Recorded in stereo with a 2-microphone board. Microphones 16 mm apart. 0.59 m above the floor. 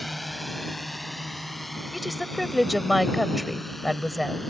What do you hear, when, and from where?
0.0 s a drone: centre (ahead or behind); by 4.5 s 5° left (ahead or behind)
1.9 s a woman speaking: 5° right (ahead or behind)